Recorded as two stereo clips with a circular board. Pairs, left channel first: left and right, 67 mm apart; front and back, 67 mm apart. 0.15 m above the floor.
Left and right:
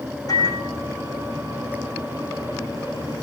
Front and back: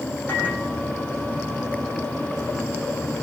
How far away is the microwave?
About 6 m.